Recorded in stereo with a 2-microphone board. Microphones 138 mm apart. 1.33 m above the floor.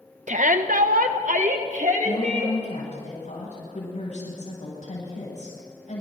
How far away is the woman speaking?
About 9.5 m.